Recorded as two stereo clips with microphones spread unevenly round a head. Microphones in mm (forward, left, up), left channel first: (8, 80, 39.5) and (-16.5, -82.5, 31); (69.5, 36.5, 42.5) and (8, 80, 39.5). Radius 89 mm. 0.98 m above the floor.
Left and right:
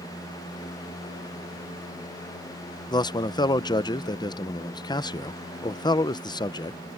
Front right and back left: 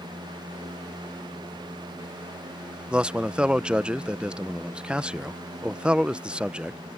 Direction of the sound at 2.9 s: 95° left.